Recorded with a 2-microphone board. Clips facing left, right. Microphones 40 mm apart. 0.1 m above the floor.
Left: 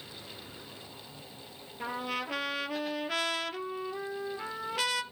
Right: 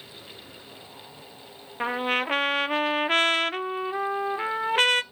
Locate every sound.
1.8 s a trumpet: 50° right (ahead or behind), 0.5 m